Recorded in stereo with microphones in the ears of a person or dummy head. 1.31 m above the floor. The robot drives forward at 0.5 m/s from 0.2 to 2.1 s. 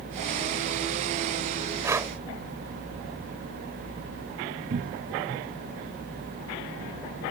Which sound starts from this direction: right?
A cupboard door, at 4.7 s.